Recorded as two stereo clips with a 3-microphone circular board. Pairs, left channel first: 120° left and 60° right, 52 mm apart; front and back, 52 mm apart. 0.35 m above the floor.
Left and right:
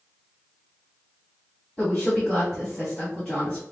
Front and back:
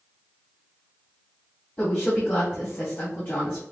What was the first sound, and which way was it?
A woman speaking, 45° left.